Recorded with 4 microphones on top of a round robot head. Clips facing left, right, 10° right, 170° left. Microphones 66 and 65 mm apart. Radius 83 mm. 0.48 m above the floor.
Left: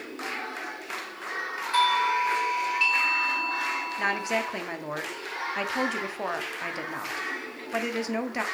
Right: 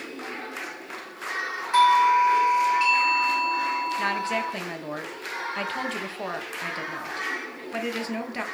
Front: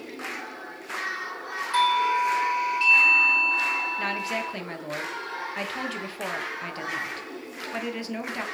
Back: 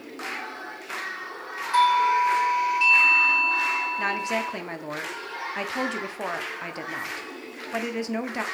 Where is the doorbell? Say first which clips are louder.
Right 6 dB, back 3 dB; 145° right, 1.6 m.